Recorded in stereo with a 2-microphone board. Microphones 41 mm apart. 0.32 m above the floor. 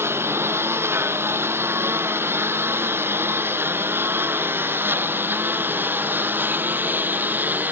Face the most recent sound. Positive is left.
turn(degrees=-50)  # may be behind; listen again after turning